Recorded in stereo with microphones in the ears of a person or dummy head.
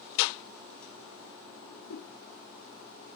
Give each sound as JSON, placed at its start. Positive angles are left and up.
{"t": 1.6, "sound": "a whoosh", "side_deg": 60, "distance_m": 1.3}